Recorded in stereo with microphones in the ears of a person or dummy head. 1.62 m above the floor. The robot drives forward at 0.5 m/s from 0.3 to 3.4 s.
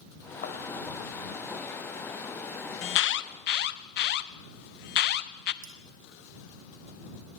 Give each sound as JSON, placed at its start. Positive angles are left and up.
{"t": 0.4, "sound": "a thud", "side_deg": 50, "distance_m": 3.0}
{"t": 2.8, "sound": "an alarm", "side_deg": 55, "distance_m": 0.9}
{"t": 5.6, "sound": "cutlery clinking", "side_deg": -35, "distance_m": 0.9}